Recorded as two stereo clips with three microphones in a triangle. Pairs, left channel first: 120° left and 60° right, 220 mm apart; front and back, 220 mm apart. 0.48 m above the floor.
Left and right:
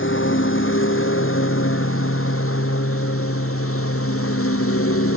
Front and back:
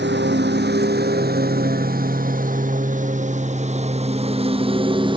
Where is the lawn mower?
145° left; by 5.2 s 115° left.